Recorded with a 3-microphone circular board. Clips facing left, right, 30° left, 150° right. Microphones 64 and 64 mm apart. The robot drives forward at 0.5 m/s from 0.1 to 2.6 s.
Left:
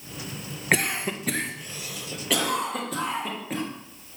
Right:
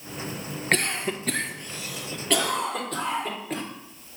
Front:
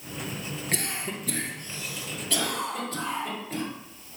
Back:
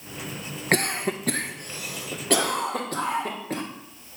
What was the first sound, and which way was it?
A cough, 175° left.